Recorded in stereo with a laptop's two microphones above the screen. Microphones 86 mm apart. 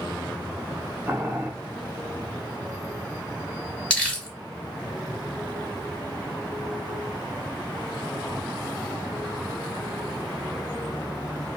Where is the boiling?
25° right (ahead or behind), 1.4 m.